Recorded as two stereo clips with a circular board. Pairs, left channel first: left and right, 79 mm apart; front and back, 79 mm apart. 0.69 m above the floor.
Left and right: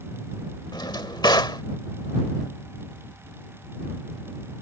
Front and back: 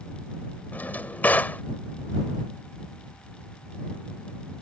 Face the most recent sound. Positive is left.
turn(degrees=65)